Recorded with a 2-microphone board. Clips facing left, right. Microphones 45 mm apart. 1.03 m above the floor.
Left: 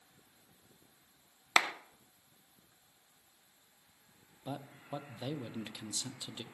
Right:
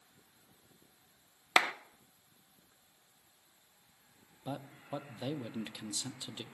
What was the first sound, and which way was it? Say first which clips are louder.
A clap: right 1 dB; 15° right (ahead or behind).